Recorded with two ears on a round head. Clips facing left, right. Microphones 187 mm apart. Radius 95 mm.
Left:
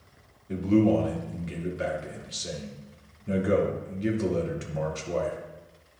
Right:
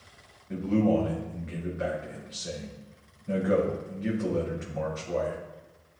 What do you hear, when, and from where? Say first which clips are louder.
0.5 s a man speaking: left 3 dB; 45° left (ahead or behind), 1.9 m